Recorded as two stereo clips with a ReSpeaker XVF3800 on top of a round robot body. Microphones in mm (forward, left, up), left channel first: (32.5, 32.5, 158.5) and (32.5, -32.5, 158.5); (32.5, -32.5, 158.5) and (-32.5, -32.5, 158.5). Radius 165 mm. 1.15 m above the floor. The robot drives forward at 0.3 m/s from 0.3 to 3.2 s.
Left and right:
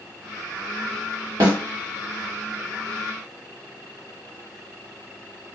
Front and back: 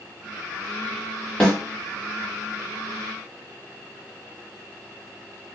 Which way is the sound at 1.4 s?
70° right.